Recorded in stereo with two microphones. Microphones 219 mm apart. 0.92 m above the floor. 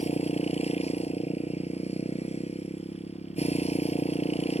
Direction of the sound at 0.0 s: 30° left (ahead or behind).